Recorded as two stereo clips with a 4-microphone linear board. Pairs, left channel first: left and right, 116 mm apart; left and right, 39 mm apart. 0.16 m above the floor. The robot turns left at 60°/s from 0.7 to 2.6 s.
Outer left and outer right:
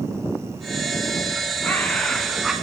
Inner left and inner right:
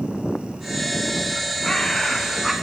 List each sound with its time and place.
1.6 s a bird: 15° left (ahead or behind), 0.7 m; by 2.5 s 5° right (ahead or behind), 0.7 m